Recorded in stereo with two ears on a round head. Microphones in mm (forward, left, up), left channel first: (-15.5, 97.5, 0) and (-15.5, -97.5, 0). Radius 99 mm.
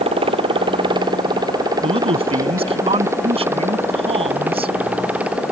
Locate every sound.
0.0 s a motorcycle: 25° right (ahead or behind); by 5.5 s 5° right (ahead or behind)
1.8 s a man speaking: 30° right (ahead or behind)